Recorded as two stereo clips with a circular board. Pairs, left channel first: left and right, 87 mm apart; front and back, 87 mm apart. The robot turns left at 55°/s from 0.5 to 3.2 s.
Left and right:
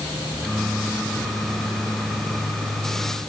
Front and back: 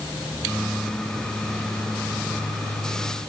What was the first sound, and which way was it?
Only background noise.